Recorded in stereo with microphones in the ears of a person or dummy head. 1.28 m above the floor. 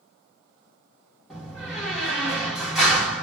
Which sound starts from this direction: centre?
A door slam, at 1.3 s.